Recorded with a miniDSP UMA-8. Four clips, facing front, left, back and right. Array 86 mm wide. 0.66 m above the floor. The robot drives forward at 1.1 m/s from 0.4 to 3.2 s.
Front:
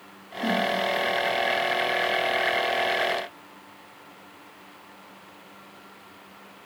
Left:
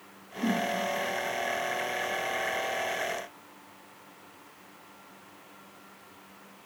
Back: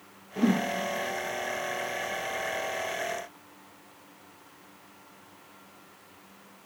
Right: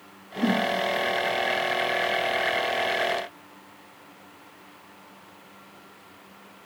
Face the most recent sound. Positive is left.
turn(degrees=-170)